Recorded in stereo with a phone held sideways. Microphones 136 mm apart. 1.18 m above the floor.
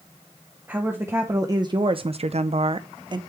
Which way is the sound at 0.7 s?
15° right (ahead or behind).